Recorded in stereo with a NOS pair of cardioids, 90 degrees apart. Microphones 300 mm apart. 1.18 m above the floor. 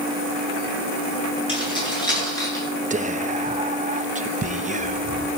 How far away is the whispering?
About 1.0 m.